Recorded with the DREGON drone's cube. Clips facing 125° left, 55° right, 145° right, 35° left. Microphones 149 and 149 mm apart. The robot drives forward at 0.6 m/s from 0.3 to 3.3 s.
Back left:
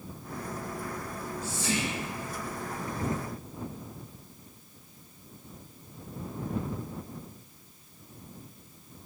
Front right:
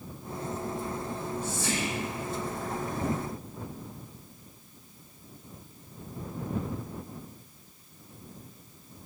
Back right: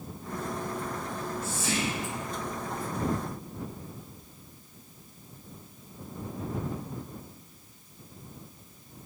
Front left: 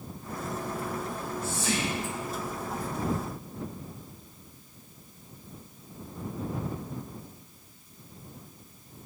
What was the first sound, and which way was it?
Whispering, 45° left.